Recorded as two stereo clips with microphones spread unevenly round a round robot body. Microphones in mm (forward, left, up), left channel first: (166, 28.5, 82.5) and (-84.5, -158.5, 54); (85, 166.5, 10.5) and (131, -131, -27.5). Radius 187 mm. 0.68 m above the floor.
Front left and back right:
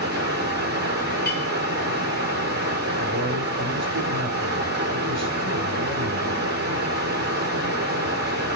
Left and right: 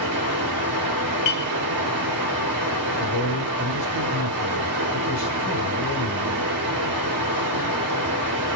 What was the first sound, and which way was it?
Running water, 90° right.